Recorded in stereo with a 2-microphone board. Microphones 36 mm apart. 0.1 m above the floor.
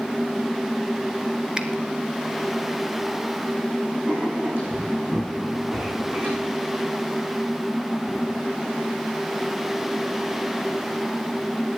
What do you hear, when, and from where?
1.6 s a finger snap: 20° right (ahead or behind), 0.9 m
4.0 s writing: 65° right (ahead or behind), 6.5 m